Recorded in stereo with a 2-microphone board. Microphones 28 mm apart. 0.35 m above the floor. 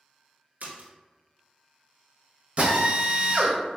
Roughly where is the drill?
Right.